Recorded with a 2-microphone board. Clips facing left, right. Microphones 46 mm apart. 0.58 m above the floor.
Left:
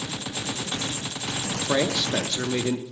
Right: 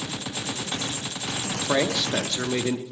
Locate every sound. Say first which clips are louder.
1.7 s a man speaking: even; 15° right (ahead or behind), 0.6 m